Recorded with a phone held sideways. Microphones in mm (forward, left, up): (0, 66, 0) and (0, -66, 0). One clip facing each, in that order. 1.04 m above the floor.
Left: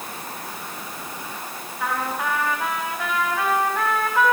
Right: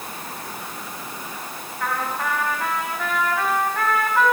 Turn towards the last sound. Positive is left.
turn(degrees=10)  # may be behind; listen again after turning